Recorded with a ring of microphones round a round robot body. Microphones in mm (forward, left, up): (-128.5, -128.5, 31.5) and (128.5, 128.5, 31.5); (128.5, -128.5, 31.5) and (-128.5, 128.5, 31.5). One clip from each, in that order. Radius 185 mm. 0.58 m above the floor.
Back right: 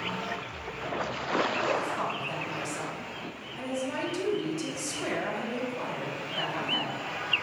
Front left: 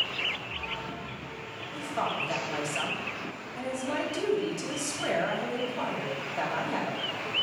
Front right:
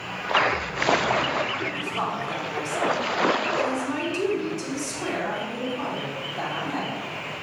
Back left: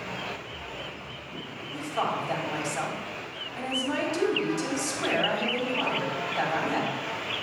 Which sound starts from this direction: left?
A woman speaking, at 1.7 s.